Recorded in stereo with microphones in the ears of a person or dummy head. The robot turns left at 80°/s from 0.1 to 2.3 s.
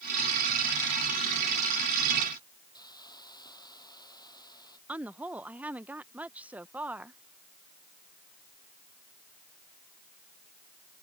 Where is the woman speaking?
15° right (ahead or behind).